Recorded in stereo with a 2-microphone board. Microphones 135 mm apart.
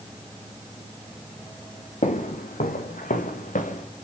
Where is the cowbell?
No cowbell in this recording.